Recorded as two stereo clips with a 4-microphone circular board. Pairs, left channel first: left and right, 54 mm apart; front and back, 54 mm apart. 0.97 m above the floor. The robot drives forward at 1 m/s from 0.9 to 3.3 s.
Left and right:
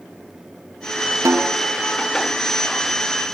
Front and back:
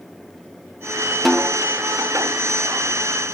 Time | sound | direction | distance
1.2 | a snare drum | 90° right | 0.7 m